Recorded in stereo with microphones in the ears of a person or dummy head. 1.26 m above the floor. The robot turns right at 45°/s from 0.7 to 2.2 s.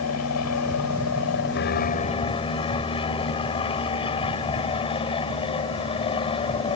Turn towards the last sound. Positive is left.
turn(degrees=155)